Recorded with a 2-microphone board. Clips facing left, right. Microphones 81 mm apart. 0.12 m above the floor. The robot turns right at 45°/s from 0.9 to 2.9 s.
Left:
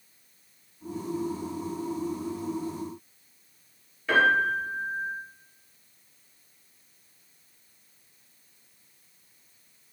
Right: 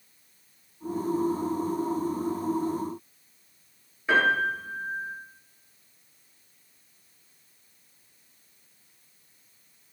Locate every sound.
4.1 s a piano: 25° right (ahead or behind), 1.6 m